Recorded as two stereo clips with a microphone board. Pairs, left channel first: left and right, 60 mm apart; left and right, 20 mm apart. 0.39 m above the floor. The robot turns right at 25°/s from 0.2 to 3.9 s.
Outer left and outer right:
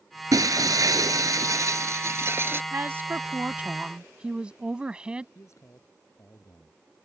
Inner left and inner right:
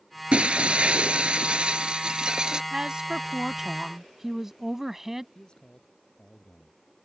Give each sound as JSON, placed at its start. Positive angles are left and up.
{"t": 0.3, "sound": "breaking glass", "azimuth_deg": -100}
{"t": 2.7, "sound": "a woman speaking", "side_deg": -45}
{"t": 5.3, "sound": "a man speaking", "side_deg": 55}